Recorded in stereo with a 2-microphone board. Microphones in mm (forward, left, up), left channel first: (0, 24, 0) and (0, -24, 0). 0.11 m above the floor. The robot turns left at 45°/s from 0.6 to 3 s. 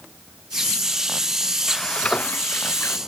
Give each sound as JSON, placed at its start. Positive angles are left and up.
{"t": 1.7, "sound": "frying", "azimuth_deg": 175}